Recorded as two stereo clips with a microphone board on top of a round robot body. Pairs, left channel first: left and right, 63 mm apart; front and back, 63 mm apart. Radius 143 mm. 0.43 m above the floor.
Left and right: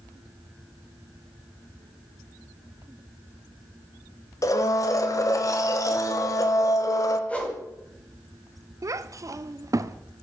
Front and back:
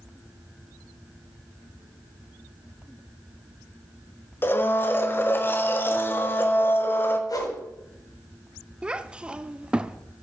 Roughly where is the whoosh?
Ahead.